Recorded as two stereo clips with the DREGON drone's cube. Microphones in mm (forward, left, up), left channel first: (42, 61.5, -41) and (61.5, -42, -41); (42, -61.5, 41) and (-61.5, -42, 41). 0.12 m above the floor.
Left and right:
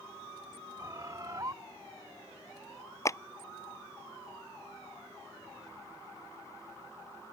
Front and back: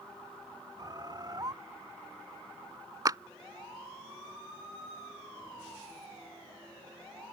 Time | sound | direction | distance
0.8 | a bird | 140° right | ?
3.0 | a clap | 140° left | ?